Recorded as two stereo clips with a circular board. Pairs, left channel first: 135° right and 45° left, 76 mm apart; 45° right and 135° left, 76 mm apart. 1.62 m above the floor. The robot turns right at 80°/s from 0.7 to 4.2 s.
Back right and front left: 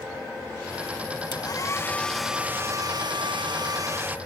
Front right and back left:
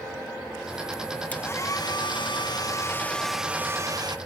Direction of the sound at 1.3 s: 115° right.